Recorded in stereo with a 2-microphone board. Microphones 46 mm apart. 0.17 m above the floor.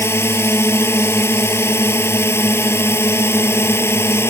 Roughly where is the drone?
Left.